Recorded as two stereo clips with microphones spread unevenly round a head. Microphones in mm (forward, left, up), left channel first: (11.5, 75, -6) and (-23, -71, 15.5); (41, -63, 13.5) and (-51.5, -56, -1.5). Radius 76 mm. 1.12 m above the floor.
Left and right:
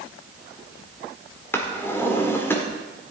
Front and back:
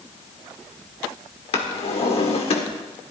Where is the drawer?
Straight ahead, 1.7 m.